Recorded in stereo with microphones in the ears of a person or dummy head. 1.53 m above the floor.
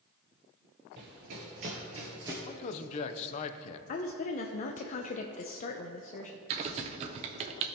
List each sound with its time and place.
1.0 s running footsteps: 50° right (ahead or behind), 2 m; by 2.4 s 15° right (ahead or behind), 1.9 m
2.5 s a man speaking: 40° left (ahead or behind), 0.6 m
3.9 s a woman speaking: 45° left (ahead or behind), 0.5 m
6.5 s typing on a keyboard: 35° right (ahead or behind), 0.6 m